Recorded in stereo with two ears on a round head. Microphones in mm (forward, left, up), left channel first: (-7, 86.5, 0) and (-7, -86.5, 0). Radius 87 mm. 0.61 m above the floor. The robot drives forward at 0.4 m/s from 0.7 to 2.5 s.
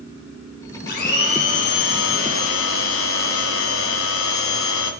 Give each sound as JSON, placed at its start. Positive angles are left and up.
{"t": 0.9, "sound": "a blender", "side_deg": 55, "distance_m": 1.7}